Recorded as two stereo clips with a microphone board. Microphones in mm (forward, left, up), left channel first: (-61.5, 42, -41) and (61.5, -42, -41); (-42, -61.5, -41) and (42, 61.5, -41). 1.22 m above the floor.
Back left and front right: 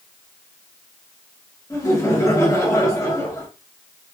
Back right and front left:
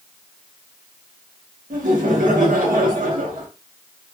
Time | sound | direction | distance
1.7 | laughter | 75° left | 1.2 m